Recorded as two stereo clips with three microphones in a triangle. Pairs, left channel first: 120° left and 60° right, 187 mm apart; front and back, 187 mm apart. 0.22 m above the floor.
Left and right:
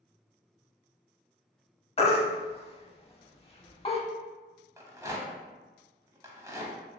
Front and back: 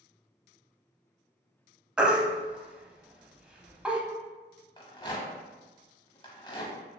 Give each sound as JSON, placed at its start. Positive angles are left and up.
{"t": 2.0, "sound": "a baby crying", "azimuth_deg": 100, "distance_m": 0.5}
{"t": 4.8, "sound": "a rattle", "azimuth_deg": -10, "distance_m": 0.6}